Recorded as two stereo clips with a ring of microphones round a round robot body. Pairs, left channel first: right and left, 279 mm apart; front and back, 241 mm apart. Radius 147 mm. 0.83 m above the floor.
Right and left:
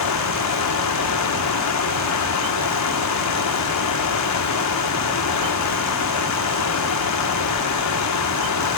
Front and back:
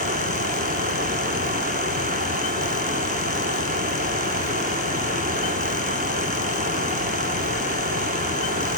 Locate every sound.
0.0 s running water: 120° right, 1.0 m